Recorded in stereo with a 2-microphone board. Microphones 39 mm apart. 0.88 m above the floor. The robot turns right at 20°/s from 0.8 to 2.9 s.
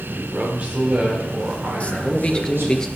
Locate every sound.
0.1 s a man speaking: 135° right, 3 m; by 2.8 s 95° right, 3 m
1.8 s a man speaking: 30° left (ahead or behind), 0.9 m; by 2.9 s 10° left (ahead or behind), 0.9 m